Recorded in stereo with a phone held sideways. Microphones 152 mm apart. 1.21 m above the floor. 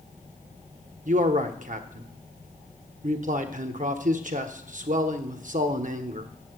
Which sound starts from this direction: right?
A man speaking, at 1.1 s.